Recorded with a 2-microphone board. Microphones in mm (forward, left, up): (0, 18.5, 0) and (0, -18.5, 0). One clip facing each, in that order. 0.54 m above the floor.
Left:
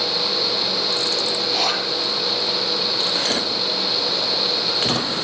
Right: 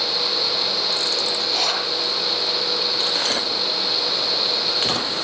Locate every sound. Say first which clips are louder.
1.4 s a zipper: left 1 dB; 5° left (ahead or behind), 7 m